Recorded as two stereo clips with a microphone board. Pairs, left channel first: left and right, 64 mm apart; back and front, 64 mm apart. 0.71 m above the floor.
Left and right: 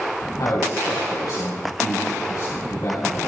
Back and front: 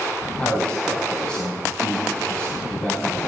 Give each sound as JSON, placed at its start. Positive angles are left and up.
{"t": 0.4, "sound": "a man speaking", "azimuth_deg": 105, "distance_m": 4.0}